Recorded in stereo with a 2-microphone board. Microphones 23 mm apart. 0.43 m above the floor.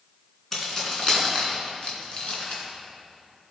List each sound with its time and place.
0.5 s keys jangling: 20° left (ahead or behind), 3 m; by 2.6 s 55° left (ahead or behind), 3 m